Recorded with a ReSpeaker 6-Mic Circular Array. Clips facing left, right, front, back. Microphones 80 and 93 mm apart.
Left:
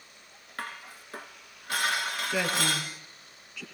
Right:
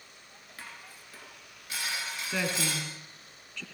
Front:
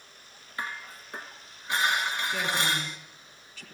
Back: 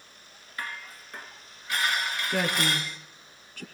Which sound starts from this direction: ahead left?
Dishes clattering, at 0.6 s.